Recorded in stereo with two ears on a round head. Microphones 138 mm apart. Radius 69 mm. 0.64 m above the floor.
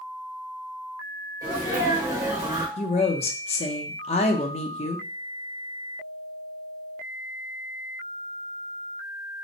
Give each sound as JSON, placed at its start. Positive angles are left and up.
{"t": 1.4, "sound": "a sneeze", "side_deg": -25, "distance_m": 2.0}
{"t": 2.8, "sound": "a woman speaking", "side_deg": 40, "distance_m": 0.7}